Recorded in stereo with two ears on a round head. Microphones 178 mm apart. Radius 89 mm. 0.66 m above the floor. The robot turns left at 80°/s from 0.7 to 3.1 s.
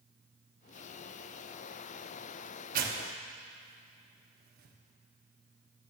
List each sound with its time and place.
2.7 s tearing paper: 45° right (ahead or behind), 0.9 m; by 4.8 s 50° right (ahead or behind), 0.9 m